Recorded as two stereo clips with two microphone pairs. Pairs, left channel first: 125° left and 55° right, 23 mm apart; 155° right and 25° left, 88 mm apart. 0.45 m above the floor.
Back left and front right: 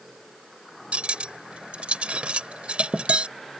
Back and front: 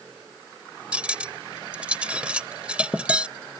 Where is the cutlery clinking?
50° right.